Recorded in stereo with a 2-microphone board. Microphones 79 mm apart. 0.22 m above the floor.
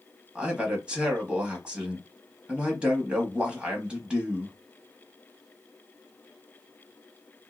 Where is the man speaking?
15° right (ahead or behind), 1.0 m.